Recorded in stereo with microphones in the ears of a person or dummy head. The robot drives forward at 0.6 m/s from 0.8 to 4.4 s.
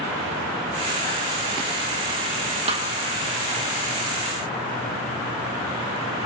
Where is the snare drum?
35° right (ahead or behind), 2 m.